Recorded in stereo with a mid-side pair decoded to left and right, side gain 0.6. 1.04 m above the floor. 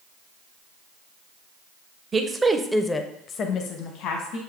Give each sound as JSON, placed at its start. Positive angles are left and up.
{"t": 2.1, "sound": "a woman speaking", "azimuth_deg": -30, "distance_m": 0.8}